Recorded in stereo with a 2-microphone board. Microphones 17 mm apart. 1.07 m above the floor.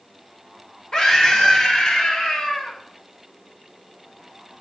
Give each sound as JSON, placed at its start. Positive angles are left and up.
{"t": 0.9, "sound": "a scream", "side_deg": 35, "distance_m": 1.8}